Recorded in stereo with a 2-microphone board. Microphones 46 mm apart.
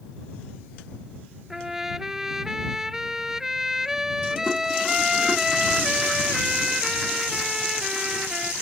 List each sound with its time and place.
1.5 s a trumpet: 10° right (ahead or behind)